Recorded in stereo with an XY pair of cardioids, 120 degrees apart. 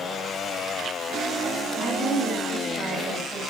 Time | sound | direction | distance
1.7 | a woman speaking | 45° right | 4 m